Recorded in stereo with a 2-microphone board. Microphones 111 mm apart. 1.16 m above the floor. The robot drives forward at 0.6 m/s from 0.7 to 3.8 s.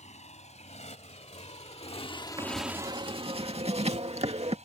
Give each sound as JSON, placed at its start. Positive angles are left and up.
{"t": 0.0, "sound": "a motorcycle", "side_deg": 80}
{"t": 2.4, "sound": "writing", "side_deg": -45}